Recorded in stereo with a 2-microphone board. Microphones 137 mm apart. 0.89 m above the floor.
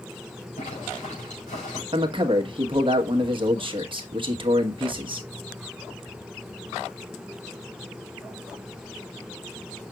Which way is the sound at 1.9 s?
40° right (ahead or behind).